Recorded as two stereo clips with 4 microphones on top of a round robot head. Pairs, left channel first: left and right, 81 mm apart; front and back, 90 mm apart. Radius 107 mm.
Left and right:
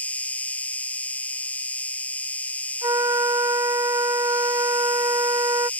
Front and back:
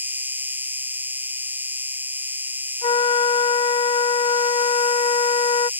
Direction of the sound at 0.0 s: 140° left.